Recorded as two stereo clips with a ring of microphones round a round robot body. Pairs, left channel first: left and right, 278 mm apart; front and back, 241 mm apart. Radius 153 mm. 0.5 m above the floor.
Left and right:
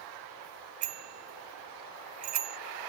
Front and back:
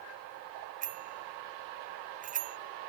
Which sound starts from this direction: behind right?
A bicycle bell, at 0.8 s.